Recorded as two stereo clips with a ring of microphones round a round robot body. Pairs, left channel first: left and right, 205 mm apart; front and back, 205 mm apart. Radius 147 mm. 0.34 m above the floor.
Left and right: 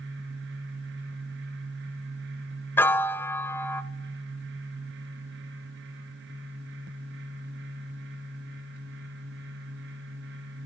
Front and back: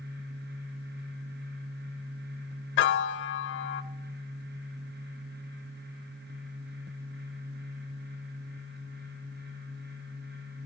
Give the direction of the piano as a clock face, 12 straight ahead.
12 o'clock.